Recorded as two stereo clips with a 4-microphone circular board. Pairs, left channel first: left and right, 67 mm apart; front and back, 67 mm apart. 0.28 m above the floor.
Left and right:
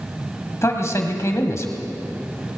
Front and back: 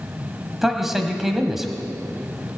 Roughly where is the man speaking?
Left.